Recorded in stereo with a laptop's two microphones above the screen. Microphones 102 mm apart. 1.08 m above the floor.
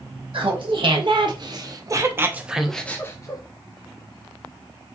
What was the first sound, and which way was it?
Laughter, 60° right (ahead or behind).